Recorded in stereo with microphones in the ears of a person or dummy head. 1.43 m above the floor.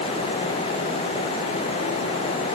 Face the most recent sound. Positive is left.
No sound to turn to.